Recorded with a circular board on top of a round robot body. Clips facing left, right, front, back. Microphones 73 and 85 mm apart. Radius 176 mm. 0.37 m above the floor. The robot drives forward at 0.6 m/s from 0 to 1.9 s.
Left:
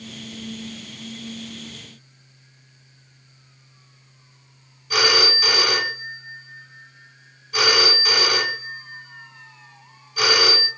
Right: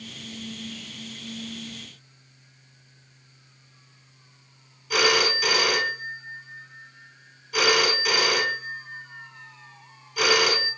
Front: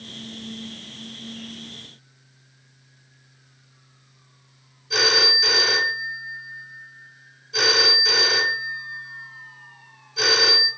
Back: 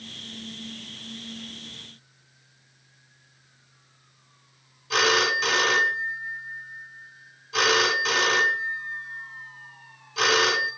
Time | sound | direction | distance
4.9 | a phone ringing | straight behind | 3.5 m